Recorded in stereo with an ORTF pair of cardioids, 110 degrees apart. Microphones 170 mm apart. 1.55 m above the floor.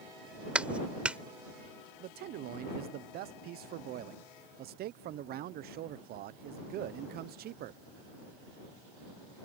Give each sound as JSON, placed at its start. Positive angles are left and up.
{"t": 0.6, "sound": "a clap", "azimuth_deg": -5}
{"t": 2.0, "sound": "a man speaking", "azimuth_deg": -65}